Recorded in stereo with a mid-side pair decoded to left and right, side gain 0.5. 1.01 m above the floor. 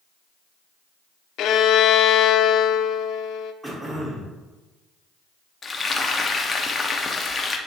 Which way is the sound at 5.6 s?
30° left.